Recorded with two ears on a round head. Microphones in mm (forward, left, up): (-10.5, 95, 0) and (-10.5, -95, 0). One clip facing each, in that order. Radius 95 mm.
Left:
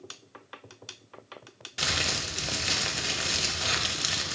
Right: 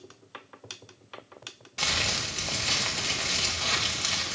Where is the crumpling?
15° left (ahead or behind), 0.5 m.